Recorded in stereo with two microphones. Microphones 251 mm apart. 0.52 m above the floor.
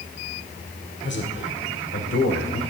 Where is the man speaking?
45° left (ahead or behind), 1.7 m; by 2.6 s 60° left (ahead or behind), 2.5 m.